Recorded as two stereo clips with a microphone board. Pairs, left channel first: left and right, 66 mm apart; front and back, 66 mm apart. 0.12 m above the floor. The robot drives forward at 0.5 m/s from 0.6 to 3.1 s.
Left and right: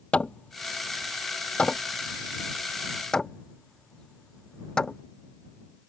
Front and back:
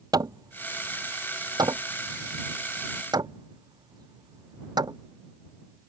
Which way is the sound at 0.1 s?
160° left.